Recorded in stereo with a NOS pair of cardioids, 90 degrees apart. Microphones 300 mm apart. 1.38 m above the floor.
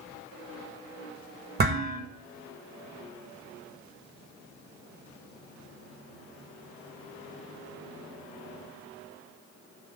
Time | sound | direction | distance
1.6 | dishes clattering | 35° right | 1.0 m